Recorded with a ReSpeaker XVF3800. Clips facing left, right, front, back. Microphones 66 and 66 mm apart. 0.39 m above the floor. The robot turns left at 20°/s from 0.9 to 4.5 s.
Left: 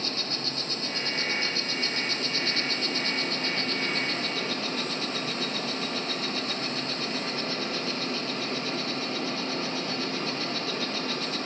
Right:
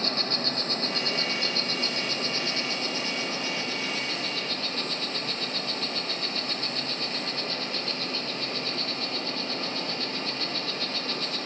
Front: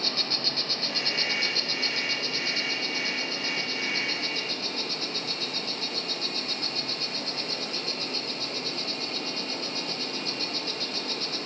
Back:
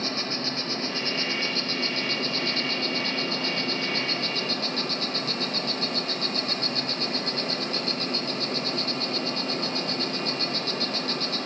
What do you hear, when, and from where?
0.0 s an insect: 115° right, 0.9 m; by 11.5 s 175° left, 0.9 m